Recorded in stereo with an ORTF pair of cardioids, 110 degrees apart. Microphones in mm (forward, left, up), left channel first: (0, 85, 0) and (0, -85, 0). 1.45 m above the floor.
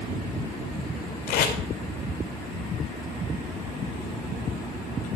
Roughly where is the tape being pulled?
Ahead left.